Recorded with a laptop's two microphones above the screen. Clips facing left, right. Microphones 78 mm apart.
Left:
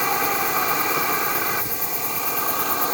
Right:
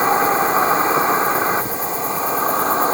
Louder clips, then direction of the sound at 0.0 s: Right 7 dB; 30° right (ahead or behind).